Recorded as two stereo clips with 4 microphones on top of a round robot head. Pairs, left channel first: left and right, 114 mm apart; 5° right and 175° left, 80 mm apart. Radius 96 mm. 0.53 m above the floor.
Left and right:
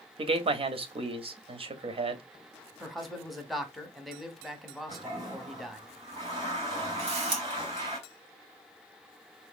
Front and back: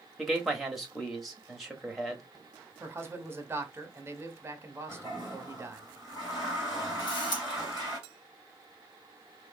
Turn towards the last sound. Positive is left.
turn(degrees=-50)